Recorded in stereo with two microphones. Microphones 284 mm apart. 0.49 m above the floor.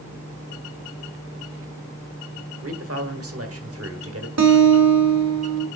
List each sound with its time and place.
2.6 s a man speaking: 50° right (ahead or behind), 1.4 m
4.4 s a guitar: 55° right (ahead or behind), 1.2 m